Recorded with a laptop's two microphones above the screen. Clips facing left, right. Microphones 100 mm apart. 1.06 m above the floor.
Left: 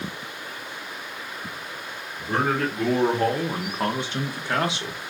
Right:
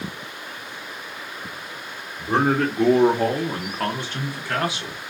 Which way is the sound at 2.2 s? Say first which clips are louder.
Right 4 dB; 30° right (ahead or behind).